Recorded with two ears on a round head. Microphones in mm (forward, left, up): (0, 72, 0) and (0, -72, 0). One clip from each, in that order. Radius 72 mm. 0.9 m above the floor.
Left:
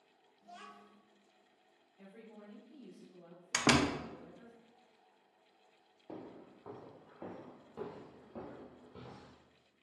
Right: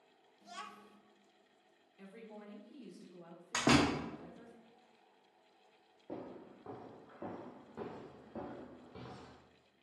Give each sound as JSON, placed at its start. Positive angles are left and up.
{"t": 0.4, "sound": "a child speaking", "side_deg": -75, "distance_m": 0.6}
{"t": 2.0, "sound": "a woman speaking", "side_deg": -45, "distance_m": 1.3}
{"t": 3.5, "sound": "a door slam", "side_deg": 50, "distance_m": 0.6}
{"t": 6.1, "sound": "footsteps", "side_deg": 40, "distance_m": 1.1}